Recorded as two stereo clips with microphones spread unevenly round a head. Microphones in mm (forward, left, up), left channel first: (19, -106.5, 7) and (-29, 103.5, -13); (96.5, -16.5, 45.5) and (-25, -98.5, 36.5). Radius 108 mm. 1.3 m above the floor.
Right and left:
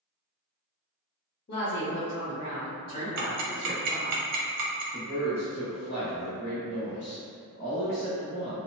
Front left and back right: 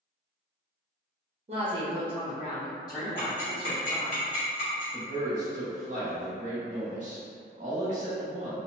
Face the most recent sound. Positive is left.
turn(degrees=-110)